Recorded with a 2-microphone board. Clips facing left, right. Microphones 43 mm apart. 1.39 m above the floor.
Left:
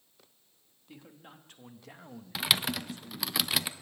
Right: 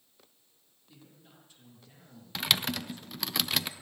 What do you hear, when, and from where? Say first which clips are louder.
0.9 s a man speaking: left 6 dB; 55° left (ahead or behind), 2.5 m; by 3.4 s 65° left (ahead or behind), 1.5 m
2.4 s typing on a keyboard: even; 5° left (ahead or behind), 0.6 m